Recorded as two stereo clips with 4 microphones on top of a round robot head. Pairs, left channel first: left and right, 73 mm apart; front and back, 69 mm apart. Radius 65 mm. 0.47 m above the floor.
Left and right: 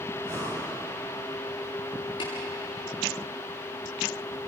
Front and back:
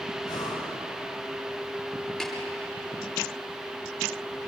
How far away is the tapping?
About 8 m.